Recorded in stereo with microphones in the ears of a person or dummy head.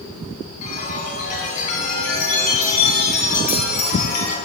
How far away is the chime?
About 3.5 m.